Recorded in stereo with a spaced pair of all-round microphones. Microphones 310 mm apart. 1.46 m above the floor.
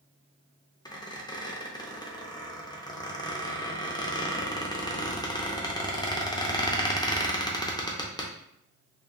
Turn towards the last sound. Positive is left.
turn(degrees=15)  # may be behind; listen again after turning